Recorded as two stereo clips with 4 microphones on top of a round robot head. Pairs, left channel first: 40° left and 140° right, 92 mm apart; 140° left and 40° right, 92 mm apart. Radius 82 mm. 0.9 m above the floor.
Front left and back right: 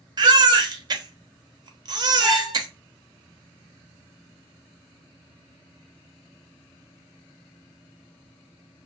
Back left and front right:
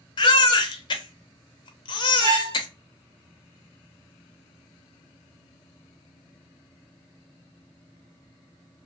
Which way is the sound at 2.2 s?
45° right.